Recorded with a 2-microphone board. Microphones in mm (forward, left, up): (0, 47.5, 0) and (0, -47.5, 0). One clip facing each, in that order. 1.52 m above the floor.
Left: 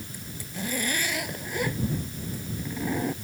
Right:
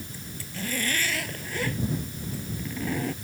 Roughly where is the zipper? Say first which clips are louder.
Left 3 dB; centre.